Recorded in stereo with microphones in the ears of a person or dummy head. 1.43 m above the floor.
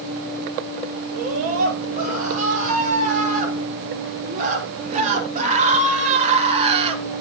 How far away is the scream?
About 7.5 m.